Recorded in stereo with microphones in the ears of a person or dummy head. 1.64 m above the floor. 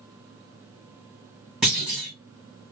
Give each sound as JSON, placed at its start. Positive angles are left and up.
{"t": 1.6, "sound": "a clunk", "side_deg": 0, "distance_m": 1.6}